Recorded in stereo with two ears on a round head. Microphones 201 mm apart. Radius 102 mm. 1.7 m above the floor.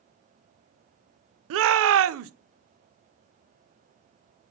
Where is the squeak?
I don't hear a squeak.